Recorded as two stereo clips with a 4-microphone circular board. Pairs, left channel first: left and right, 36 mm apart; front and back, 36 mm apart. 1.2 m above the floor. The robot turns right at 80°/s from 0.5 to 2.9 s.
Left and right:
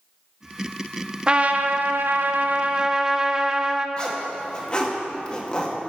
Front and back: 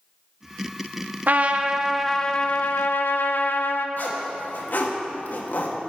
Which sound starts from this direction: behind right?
A trumpet, at 1.3 s.